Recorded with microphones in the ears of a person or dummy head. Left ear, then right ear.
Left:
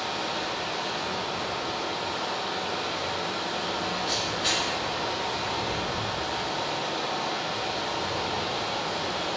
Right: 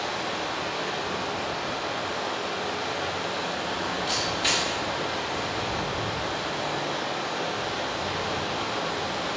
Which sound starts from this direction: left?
Running water, at 0.0 s.